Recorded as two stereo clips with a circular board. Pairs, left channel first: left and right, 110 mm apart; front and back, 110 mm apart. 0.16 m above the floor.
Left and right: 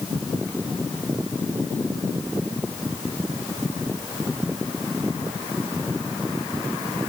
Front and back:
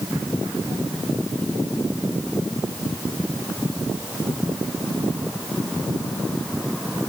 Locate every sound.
Only background noise.